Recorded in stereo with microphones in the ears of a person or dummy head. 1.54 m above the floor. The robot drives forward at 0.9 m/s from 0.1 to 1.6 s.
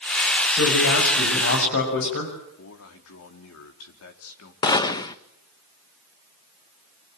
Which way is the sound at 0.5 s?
80° left.